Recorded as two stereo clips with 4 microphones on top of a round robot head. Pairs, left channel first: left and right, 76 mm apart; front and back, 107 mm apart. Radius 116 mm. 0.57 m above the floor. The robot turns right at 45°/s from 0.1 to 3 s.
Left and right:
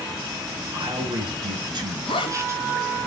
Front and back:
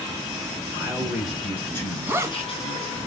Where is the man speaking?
115° right, 5 m; by 3.0 s 10° right, 5 m.